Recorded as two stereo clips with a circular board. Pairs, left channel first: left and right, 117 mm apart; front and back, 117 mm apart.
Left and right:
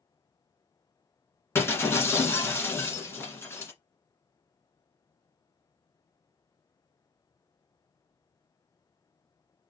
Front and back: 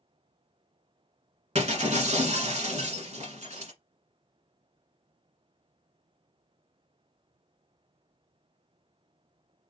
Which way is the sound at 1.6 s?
160° left.